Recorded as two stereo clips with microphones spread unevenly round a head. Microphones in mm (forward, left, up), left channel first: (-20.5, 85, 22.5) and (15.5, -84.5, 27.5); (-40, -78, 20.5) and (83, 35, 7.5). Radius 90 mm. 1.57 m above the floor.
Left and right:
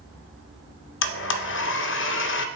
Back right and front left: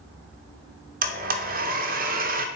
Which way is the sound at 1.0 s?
85° left.